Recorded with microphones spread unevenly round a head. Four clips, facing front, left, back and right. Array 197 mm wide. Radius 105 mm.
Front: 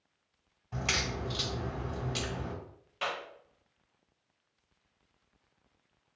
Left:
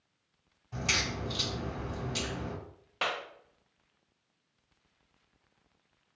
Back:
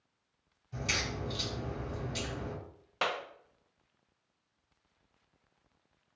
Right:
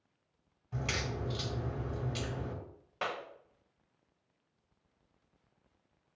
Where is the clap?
155° left, 0.6 m.